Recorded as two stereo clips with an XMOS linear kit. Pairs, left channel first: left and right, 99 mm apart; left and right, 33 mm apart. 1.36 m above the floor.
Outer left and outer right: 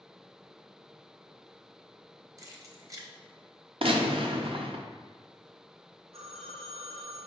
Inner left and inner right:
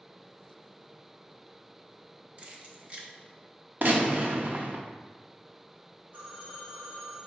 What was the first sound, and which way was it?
Keys jangling, 35° right (ahead or behind).